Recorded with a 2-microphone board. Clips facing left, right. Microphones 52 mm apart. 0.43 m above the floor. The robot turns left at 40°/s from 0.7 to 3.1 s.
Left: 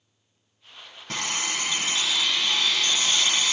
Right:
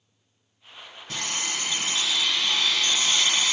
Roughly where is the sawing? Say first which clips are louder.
Left 2 dB; ahead left.